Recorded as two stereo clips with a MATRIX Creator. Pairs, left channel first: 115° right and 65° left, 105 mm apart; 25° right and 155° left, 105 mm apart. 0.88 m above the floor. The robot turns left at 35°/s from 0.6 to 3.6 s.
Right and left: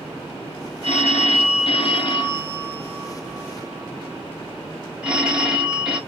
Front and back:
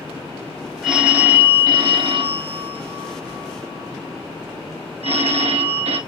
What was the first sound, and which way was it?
A phone ringing, 115° right.